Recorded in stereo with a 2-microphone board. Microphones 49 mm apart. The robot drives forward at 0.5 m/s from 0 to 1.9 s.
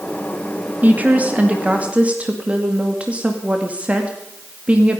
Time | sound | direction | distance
0.8 | a woman speaking | 30° right (ahead or behind) | 1.7 m